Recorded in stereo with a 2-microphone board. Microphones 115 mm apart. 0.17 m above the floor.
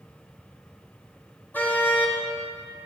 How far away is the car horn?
About 4 m.